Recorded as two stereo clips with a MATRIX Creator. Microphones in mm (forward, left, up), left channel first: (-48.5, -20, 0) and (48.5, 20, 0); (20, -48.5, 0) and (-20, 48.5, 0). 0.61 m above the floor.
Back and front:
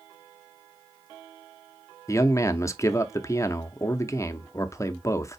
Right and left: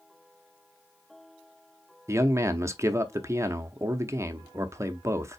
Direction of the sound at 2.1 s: 160° left.